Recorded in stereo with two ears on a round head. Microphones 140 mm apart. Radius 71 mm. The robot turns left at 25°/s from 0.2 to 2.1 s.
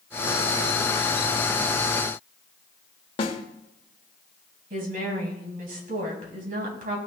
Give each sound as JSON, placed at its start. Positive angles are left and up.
{"t": 3.2, "sound": "a snare drum", "side_deg": 35, "distance_m": 1.1}
{"t": 4.7, "sound": "a woman speaking", "side_deg": -60, "distance_m": 3.0}